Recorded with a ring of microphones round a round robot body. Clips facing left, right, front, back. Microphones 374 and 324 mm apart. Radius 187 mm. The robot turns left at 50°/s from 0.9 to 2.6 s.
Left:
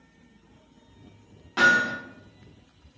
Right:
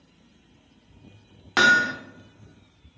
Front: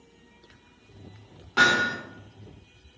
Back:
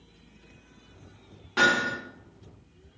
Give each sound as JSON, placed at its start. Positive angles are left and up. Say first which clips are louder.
{"t": 1.6, "sound": "hammering", "louder": "right 1 dB, even", "azimuth_deg": -90, "distance_m": 0.6}